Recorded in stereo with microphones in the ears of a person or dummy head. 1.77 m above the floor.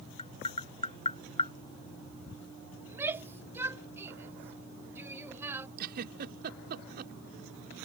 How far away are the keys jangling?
I don't hear keys jangling.